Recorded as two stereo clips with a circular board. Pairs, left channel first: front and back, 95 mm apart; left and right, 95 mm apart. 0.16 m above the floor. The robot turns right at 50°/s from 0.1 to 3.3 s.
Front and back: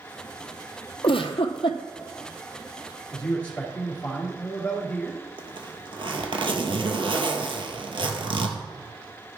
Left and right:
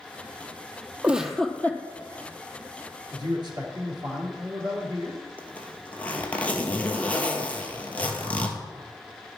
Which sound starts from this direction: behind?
A zipper, at 5.4 s.